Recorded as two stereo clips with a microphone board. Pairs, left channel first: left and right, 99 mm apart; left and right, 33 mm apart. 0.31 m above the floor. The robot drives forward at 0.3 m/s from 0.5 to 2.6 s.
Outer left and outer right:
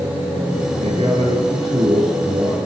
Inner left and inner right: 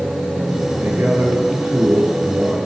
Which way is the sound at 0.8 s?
65° right (ahead or behind).